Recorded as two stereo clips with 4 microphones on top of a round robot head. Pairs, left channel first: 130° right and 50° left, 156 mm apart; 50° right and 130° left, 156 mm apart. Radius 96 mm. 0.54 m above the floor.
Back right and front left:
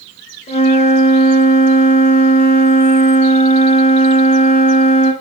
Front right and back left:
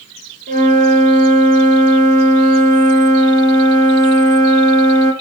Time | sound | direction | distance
0.5 | a flute | 175° left | 1.8 m